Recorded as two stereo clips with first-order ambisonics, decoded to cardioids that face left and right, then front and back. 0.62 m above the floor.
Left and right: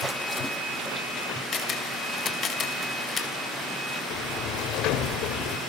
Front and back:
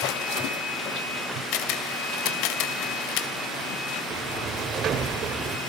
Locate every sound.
1.5 s a camera shutter: 25° left, 2.5 m
4.1 s a sliding door: 125° left, 2.0 m